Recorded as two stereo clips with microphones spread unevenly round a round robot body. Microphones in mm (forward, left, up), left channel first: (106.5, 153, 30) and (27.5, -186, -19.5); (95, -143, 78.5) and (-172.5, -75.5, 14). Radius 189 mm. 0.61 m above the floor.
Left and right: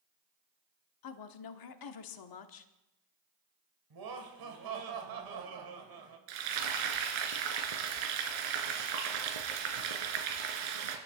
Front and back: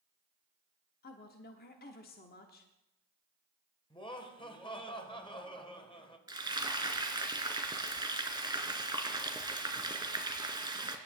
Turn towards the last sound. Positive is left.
turn(degrees=-115)